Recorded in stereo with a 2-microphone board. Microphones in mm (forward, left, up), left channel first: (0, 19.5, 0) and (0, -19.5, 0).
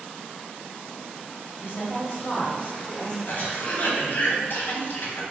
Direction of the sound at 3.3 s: 55° left (ahead or behind).